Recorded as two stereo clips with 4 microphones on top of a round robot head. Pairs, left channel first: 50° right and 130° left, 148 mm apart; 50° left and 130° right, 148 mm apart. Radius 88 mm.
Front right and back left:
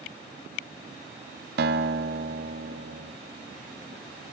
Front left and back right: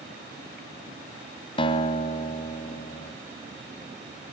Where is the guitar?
110° left, 1.8 m.